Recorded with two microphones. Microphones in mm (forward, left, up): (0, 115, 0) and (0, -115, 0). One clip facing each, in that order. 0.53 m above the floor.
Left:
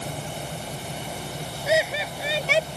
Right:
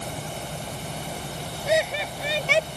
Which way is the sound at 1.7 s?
5° left (ahead or behind).